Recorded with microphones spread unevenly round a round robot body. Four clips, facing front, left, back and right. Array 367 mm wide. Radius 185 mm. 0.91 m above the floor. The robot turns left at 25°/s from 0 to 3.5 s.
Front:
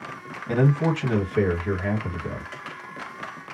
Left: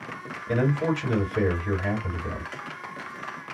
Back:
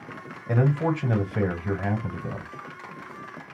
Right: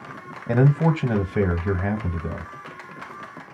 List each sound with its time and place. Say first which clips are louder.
0.5 s a man speaking: right 4 dB, front 2 dB; 80° right, 1.1 m; by 2.5 s 130° right, 1.1 m